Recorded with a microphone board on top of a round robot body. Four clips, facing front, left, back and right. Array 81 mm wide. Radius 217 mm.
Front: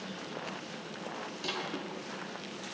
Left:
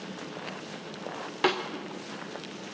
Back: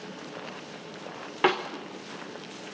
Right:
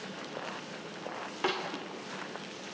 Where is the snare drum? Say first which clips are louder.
Left 6 dB, back 16 dB; 165° left, 1.1 m.